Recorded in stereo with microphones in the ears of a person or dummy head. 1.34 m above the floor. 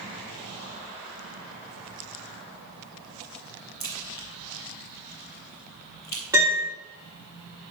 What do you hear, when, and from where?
3.8 s a crack: 15° left (ahead or behind), 0.7 m
6.3 s a piano: 15° right (ahead or behind), 3 m